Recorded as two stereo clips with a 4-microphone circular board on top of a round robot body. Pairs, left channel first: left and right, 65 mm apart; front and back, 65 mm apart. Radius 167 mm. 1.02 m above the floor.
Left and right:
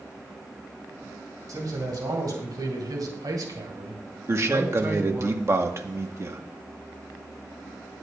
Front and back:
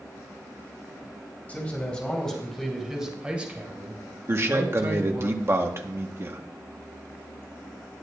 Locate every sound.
1.5 s a man speaking: 70° right, 4.5 m; by 5.3 s 145° right, 5 m
4.3 s a man speaking: 130° right, 1.5 m